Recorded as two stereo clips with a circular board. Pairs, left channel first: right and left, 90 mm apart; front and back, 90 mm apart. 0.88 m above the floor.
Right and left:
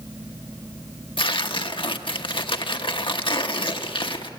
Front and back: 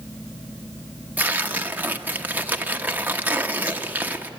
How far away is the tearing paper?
About 1.0 m.